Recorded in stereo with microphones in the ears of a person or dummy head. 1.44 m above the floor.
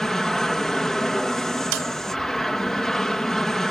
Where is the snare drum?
75° right (ahead or behind).